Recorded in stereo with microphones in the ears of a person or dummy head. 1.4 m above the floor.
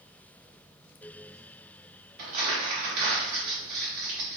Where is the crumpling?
45° right (ahead or behind), 1.4 m.